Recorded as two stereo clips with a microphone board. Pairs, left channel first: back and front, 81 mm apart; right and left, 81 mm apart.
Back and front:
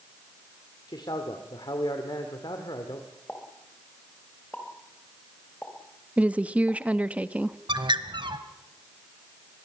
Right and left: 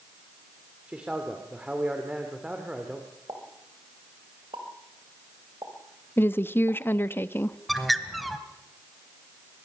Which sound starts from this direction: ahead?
A bird, at 7.7 s.